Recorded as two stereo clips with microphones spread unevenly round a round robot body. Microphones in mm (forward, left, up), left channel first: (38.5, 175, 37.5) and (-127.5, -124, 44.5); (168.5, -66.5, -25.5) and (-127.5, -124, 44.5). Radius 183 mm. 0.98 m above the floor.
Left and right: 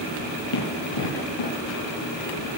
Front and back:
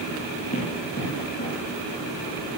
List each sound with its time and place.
0.5 s running footsteps: 85° left, 7.5 m; by 1.5 s 80° left, 8 m